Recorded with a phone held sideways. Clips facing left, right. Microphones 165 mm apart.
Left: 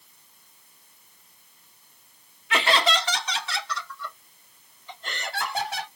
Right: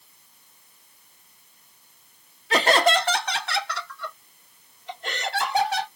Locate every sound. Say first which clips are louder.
2.5 s laughter: right 4 dB; 35° right (ahead or behind), 0.5 m; by 5.9 s 80° right, 2 m